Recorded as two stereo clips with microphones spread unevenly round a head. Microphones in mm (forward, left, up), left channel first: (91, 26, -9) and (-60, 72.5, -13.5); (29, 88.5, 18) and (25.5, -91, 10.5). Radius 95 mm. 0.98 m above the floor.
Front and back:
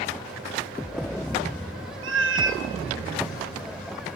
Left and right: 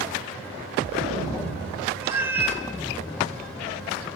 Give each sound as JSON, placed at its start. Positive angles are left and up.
{"t": 2.0, "sound": "a cat meowing", "azimuth_deg": -170, "distance_m": 1.3}